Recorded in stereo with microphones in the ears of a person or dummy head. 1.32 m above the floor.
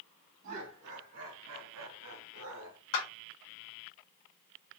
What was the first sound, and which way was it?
Laughter, 70° right (ahead or behind).